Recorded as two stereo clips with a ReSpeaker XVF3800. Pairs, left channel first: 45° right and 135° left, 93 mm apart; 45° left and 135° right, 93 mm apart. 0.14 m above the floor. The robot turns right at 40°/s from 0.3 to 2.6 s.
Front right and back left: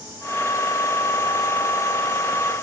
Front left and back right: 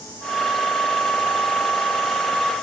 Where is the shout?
No shout in this recording.